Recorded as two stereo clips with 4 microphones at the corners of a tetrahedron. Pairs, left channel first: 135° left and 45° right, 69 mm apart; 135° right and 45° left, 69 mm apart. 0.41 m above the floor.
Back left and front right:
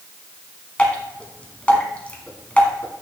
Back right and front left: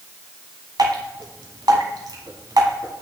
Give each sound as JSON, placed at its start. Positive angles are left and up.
{"t": 0.8, "sound": "dripping", "azimuth_deg": 65, "distance_m": 1.3}